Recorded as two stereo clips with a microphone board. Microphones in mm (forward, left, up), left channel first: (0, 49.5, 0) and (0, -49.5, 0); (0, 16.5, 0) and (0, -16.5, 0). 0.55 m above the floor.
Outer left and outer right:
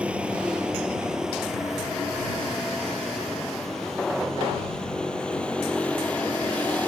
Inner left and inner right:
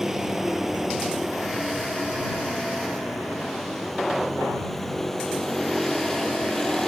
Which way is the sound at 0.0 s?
10° right (ahead or behind).